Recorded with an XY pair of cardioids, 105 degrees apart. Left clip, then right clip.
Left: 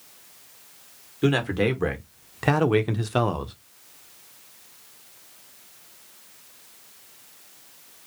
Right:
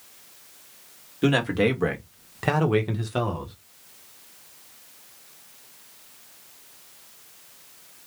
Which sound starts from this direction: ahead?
A man speaking, at 1.2 s.